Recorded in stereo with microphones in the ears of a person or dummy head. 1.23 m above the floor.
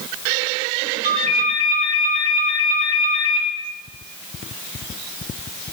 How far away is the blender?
I don't hear a blender.